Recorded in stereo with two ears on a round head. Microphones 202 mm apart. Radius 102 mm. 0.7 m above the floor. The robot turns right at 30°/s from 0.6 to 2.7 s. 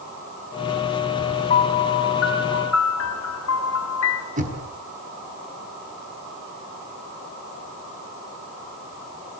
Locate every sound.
1.5 s a piano: 30° left, 2.5 m; by 4.3 s 65° left, 2.5 m
4.4 s knocking: 40° right (ahead or behind), 5 m